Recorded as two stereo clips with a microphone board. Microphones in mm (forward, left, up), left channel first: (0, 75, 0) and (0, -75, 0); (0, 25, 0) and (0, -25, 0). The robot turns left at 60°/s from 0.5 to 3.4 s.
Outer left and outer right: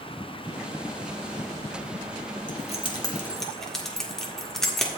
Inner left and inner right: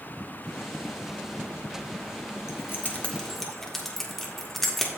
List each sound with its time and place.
2.5 s keys jangling: 55° left (ahead or behind), 1.6 m; by 4.9 s 5° left (ahead or behind), 1.6 m